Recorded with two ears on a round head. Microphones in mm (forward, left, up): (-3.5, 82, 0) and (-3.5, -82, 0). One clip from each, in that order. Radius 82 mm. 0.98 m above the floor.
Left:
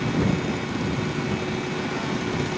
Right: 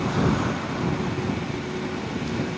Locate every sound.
Only background noise.